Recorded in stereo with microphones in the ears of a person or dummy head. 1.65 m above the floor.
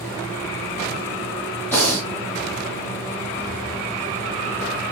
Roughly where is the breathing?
Centre.